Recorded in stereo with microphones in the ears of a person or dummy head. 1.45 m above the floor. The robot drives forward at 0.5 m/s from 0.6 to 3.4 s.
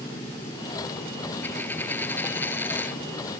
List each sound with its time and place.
1.4 s a dropped coin: 10° left (ahead or behind)